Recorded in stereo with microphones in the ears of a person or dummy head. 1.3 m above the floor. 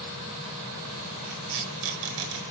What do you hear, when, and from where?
1.3 s tape being pulled: 85° right, 4 m